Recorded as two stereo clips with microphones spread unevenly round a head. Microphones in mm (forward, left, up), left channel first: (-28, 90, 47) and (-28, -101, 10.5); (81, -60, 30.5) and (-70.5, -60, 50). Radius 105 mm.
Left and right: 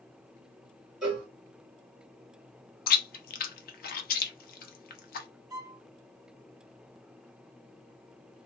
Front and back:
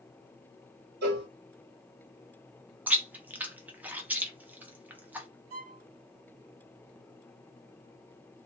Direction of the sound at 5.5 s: 165° right.